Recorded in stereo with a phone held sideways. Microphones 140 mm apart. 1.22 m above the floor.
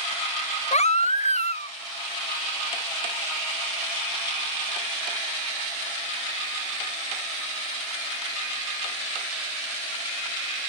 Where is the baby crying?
55° left (ahead or behind), 0.6 m.